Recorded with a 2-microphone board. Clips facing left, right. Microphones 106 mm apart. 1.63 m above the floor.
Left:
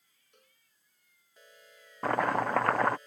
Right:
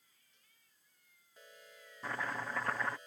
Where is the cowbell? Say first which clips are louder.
Left 10 dB; 65° left (ahead or behind).